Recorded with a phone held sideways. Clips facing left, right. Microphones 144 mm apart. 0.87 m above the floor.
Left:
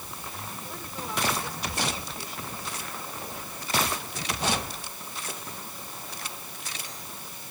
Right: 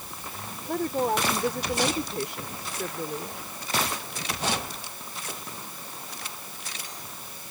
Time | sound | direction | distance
0.7 | a woman speaking | 60° right (ahead or behind) | ?